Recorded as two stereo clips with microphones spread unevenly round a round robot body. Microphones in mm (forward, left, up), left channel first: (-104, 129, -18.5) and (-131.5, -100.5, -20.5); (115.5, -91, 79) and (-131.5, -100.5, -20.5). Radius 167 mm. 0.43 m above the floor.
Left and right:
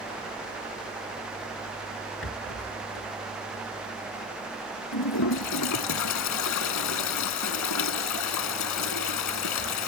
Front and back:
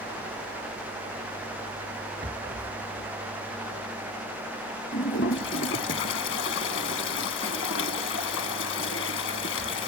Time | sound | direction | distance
2.2 | a rattle | 110° left | ?
4.9 | a toilet flushing | 60° left | ?